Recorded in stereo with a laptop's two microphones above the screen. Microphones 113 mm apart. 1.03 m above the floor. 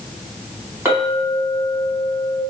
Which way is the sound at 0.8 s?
30° right (ahead or behind).